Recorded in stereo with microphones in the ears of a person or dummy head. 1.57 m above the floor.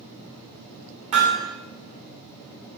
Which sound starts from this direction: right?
Hammering, at 1.1 s.